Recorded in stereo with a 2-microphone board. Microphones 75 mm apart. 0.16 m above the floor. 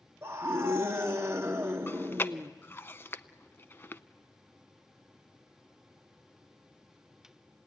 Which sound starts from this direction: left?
Chewing, at 1.9 s.